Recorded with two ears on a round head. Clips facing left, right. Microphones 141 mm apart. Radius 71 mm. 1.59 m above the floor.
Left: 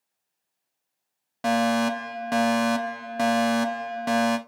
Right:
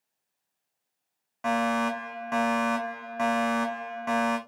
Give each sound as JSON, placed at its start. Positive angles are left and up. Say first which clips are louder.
{"t": 1.4, "sound": "a fire alarm", "louder": "left 4 dB", "side_deg": 40, "distance_m": 0.8}